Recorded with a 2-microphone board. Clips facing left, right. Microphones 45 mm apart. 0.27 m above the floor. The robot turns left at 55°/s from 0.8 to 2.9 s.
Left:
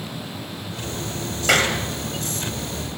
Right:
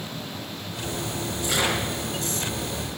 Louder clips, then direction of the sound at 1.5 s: Left 6 dB; 80° left.